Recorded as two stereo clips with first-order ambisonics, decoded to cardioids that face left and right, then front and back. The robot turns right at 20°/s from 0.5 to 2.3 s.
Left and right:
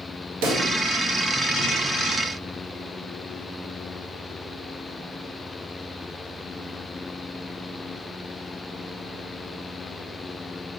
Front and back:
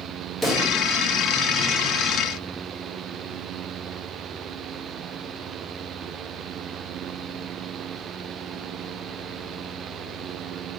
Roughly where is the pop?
Right.